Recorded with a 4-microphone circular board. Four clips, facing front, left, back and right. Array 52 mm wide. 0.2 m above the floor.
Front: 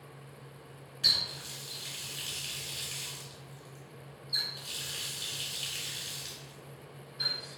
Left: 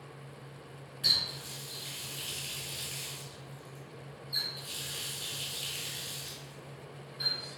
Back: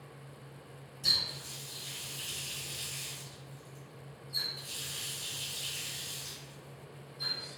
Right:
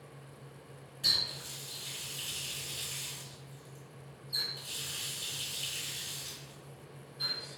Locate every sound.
1.0 s a running tap: 20° left, 1.7 m